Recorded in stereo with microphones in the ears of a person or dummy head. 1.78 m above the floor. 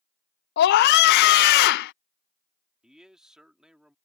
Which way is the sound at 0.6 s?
65° left (ahead or behind).